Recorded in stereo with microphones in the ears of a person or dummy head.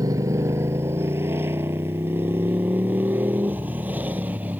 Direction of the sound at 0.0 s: 20° right (ahead or behind).